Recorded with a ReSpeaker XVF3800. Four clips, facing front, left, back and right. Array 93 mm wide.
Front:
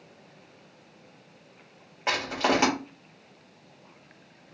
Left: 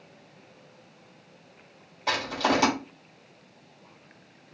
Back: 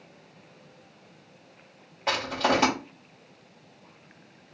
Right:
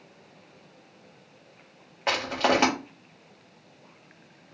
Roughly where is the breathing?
I don't hear breathing.